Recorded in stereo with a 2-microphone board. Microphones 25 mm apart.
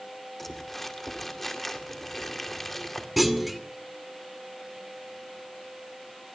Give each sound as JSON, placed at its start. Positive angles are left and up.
{"t": 0.4, "sound": "crumpling", "side_deg": 10, "distance_m": 2.0}
{"t": 3.2, "sound": "a clunk", "side_deg": 0, "distance_m": 1.7}